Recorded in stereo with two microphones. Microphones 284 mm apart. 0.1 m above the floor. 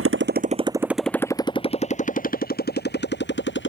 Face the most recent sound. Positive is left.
turn(degrees=40)  # may be behind; listen again after turning